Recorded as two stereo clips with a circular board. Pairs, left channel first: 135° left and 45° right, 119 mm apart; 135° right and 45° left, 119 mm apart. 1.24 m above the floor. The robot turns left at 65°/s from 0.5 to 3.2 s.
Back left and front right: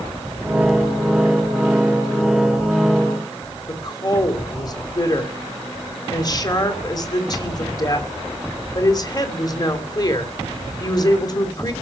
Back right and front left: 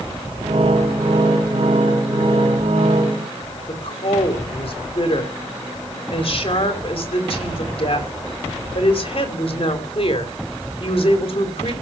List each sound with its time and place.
3.7 s a woman speaking: 170° right, 3 m